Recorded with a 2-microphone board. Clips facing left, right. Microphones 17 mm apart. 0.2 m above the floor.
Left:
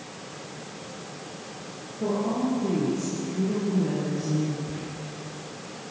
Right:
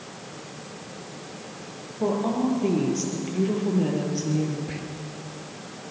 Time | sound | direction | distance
2.0 | a woman speaking | 55° right (ahead or behind) | 6 m
4.7 | whispering | 70° right (ahead or behind) | 4 m